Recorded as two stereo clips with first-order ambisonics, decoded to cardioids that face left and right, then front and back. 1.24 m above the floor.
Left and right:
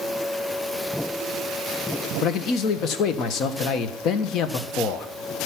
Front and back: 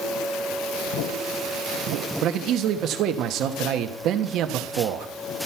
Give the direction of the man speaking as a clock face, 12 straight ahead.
7 o'clock.